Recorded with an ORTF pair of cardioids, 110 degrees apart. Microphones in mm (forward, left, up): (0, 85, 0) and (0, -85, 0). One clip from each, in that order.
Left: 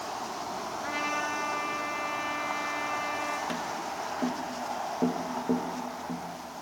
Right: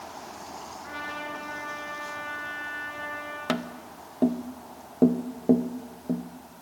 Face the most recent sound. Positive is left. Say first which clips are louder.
# even
turn(degrees=-40)